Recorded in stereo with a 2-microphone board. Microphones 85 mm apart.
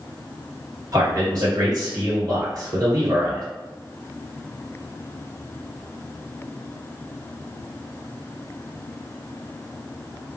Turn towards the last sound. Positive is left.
turn(degrees=-45)  # may be behind; listen again after turning